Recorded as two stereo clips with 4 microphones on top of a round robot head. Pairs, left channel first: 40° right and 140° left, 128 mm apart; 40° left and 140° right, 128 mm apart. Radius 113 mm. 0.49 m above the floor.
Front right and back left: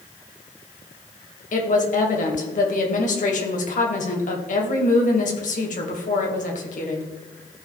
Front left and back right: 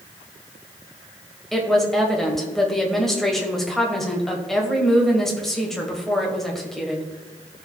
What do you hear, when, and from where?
1.5 s a woman speaking: 45° right, 2.5 m